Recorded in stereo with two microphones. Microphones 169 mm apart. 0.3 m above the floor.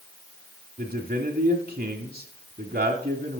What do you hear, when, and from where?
0.8 s a man speaking: 55° right (ahead or behind), 1.5 m